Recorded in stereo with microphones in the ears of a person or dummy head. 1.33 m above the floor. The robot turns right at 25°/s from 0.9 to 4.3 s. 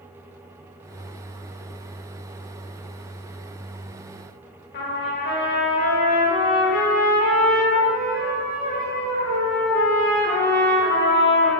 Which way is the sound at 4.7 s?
50° left (ahead or behind).